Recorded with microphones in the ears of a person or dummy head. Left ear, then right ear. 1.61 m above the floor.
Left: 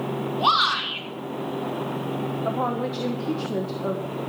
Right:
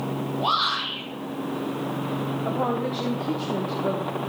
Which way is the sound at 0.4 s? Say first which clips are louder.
Left 3 dB; 55° left (ahead or behind).